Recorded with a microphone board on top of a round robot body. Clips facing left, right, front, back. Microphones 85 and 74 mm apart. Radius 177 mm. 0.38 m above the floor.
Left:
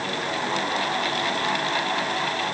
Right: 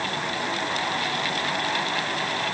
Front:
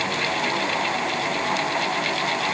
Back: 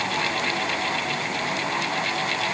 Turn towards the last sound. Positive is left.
No sound to turn to.